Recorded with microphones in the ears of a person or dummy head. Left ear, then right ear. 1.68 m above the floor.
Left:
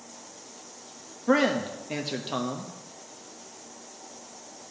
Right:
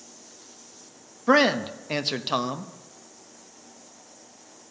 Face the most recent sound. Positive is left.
turn(degrees=-30)  # may be behind; listen again after turning